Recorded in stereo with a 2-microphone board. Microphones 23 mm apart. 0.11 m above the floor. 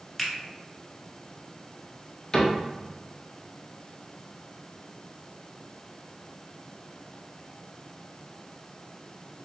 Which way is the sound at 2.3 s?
25° left (ahead or behind).